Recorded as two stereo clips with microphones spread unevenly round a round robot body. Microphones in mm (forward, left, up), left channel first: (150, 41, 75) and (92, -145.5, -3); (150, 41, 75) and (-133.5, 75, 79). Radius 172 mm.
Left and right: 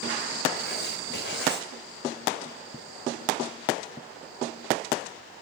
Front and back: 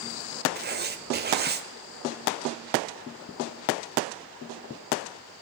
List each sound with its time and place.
0.6 s writing: 125° left, 1.6 m